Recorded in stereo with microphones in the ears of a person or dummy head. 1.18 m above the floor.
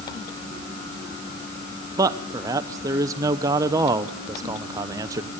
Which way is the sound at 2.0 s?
20° right (ahead or behind).